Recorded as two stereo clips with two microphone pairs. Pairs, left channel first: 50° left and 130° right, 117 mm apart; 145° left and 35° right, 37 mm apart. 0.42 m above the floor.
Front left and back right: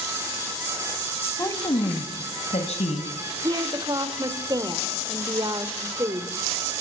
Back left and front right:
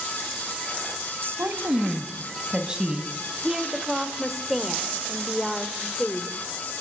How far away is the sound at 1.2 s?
About 2.5 m.